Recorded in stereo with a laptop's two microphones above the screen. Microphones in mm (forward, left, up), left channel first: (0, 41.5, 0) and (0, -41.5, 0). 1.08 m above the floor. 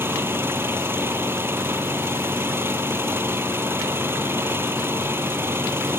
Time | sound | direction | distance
0.0 | an engine running | 25° right (ahead or behind) | ?